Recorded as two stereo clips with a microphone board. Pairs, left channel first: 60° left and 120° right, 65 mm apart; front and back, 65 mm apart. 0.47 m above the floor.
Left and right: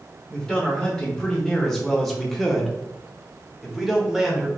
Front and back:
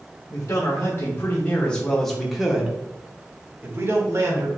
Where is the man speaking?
20° right, 1.3 m; by 4.5 s 155° left, 1.4 m.